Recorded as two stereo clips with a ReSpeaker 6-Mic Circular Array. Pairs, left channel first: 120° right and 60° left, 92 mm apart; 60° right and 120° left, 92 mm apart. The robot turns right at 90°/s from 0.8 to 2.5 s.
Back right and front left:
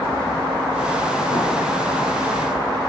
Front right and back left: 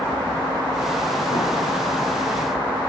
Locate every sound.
1.3 s a drawer: 95° right, 9 m; by 1.4 s 85° right, 9 m